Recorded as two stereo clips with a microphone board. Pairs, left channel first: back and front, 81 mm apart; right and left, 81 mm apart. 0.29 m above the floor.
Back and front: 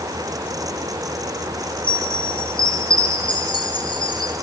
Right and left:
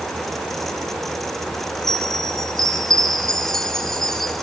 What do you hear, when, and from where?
1.8 s a chime: 175° right, 4.5 m